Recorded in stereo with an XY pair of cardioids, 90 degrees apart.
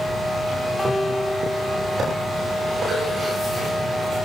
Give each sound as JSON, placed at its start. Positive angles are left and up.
{"t": 0.8, "sound": "a guitar", "azimuth_deg": 25, "distance_m": 10.0}